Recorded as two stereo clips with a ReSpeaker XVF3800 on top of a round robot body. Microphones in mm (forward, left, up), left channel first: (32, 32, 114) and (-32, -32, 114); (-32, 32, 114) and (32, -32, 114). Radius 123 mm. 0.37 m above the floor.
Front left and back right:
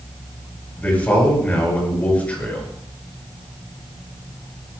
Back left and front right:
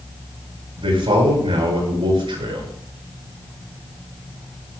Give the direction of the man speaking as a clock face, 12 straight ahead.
1 o'clock.